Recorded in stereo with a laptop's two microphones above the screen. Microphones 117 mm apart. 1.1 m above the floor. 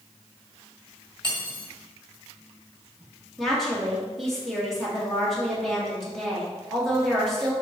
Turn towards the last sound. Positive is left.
turn(degrees=0)  # may be behind; listen again after turning